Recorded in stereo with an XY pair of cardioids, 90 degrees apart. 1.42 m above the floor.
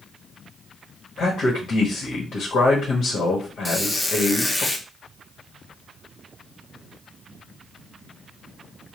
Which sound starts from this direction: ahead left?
A man speaking, at 1.2 s.